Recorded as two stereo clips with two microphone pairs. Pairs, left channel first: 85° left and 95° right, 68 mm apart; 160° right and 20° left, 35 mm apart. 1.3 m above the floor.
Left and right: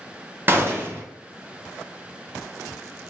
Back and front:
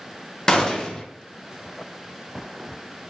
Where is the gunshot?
110° right, 0.6 m.